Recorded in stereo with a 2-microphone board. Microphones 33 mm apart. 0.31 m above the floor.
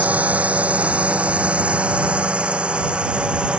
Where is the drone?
45° right (ahead or behind); by 3.6 s 30° right (ahead or behind).